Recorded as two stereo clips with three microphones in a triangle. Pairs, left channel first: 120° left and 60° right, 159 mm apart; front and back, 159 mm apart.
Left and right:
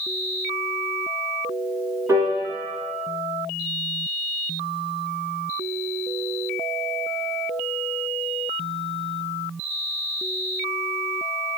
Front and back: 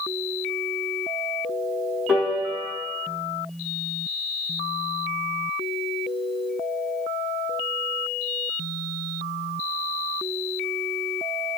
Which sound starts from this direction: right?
A piano, at 2.1 s.